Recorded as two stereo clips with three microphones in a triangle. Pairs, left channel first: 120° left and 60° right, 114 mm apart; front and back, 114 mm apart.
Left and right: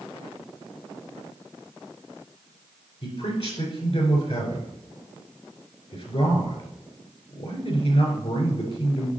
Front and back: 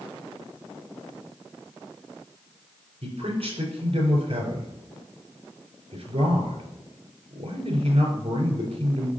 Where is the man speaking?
145° left, 3.5 m.